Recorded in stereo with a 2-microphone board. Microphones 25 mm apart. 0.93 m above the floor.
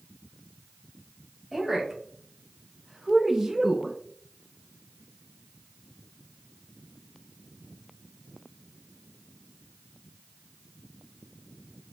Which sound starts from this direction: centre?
A woman speaking, at 1.5 s.